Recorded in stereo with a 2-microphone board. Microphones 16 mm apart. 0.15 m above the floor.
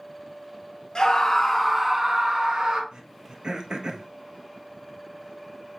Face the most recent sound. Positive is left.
turn(degrees=-60)  # may be behind; listen again after turning